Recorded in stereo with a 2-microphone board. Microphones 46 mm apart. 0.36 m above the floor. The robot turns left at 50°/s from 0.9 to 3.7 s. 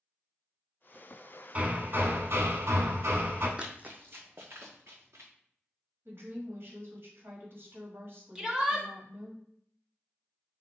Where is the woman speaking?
60° right (ahead or behind), 1.7 m.